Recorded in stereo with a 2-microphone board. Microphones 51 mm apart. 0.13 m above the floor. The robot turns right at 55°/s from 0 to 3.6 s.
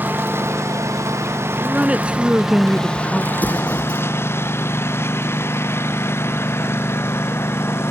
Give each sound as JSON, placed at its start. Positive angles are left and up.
{"t": 0.0, "sound": "a lawn mower", "azimuth_deg": -140}
{"t": 1.6, "sound": "a woman speaking", "side_deg": -25}
{"t": 3.3, "sound": "an explosion", "side_deg": 40}